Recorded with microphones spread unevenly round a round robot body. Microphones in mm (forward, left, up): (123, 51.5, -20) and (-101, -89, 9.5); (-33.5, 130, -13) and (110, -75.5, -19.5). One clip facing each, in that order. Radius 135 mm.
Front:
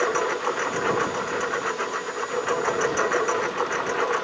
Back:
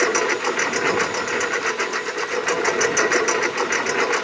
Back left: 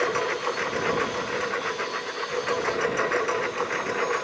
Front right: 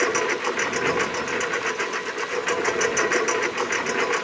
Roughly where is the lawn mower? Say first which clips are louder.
Back 3 dB, front right 2 dB; right.